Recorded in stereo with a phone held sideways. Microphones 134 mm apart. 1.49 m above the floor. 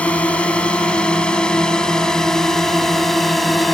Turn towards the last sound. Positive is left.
turn(degrees=0)  # may be behind; listen again after turning